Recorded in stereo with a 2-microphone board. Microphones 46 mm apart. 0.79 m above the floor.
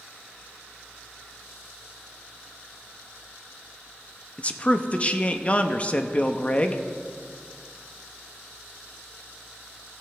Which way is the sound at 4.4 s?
30° left (ahead or behind).